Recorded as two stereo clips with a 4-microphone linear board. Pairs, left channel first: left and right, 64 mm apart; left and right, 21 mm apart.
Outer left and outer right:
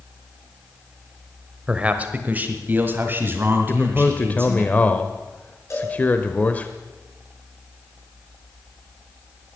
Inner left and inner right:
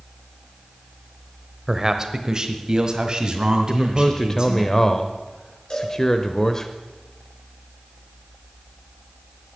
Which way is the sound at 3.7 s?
25° left (ahead or behind).